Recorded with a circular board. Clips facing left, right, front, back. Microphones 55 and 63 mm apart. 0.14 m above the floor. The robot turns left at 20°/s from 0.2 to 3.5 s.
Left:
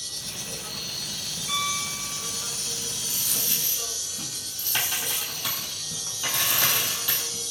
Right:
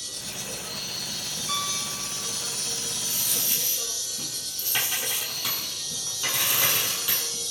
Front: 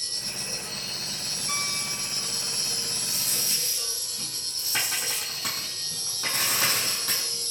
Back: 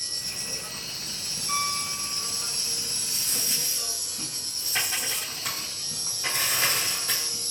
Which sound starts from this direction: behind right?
An insect, at 0.0 s.